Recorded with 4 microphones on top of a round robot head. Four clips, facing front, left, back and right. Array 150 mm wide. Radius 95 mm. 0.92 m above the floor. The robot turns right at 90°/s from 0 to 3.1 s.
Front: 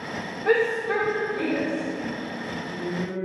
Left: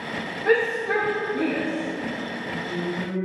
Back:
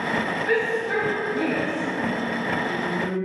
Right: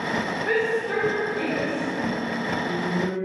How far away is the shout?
About 2.5 m.